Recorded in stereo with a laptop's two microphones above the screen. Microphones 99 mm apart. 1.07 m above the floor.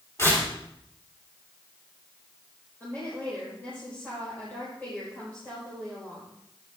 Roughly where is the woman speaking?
Left.